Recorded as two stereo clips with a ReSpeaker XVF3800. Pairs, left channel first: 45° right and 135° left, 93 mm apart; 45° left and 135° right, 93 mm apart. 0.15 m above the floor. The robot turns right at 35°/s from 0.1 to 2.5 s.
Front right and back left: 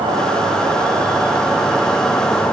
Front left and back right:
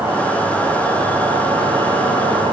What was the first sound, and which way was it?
An insect, 155° left.